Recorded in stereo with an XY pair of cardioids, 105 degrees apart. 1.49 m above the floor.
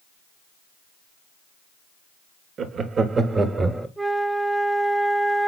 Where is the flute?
5° right, 0.6 m.